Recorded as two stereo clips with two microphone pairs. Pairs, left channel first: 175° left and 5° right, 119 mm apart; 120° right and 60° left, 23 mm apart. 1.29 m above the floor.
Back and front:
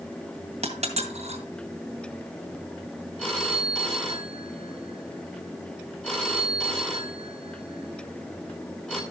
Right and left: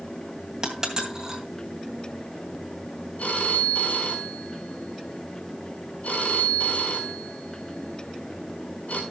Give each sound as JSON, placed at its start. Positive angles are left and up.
{"t": 0.6, "sound": "a dropped coin", "azimuth_deg": 0, "distance_m": 2.5}
{"t": 3.2, "sound": "a phone ringing", "azimuth_deg": -105, "distance_m": 4.0}